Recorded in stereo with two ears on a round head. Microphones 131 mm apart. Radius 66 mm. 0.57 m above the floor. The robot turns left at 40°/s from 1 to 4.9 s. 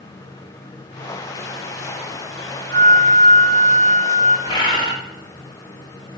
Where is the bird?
30° left (ahead or behind), 0.8 m; by 4.9 s 35° left (ahead or behind), 0.8 m.